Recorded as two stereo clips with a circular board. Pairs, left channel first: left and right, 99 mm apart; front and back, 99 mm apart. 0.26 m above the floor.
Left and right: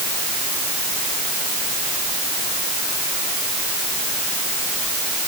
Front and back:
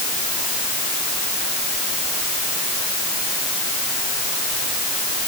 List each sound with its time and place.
Only background noise.